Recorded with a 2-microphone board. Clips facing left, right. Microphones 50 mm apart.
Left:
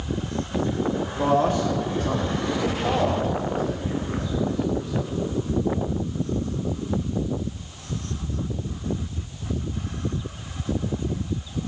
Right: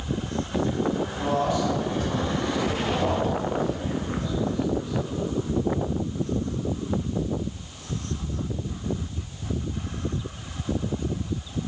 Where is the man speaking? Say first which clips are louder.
Left 4 dB; 45° left (ahead or behind), 1.1 m; by 5.2 s 80° left, 4 m.